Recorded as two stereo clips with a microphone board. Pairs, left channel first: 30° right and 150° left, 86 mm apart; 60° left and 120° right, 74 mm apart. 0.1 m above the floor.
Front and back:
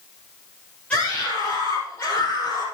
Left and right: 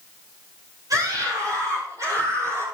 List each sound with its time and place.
0.9 s a scream: 105° right, 3 m; by 2.6 s 80° right, 3 m